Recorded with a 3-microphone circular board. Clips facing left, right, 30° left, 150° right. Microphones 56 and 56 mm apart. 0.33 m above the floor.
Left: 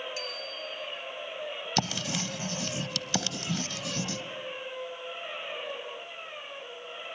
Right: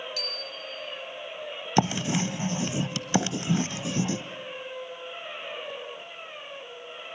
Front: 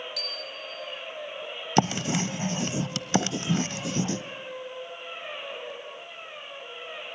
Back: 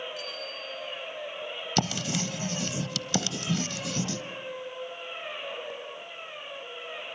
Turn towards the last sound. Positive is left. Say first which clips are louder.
# right 8 dB, front 6 dB
turn(degrees=-30)